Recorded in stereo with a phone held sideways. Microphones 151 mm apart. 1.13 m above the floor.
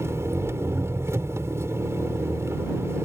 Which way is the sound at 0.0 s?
15° right (ahead or behind).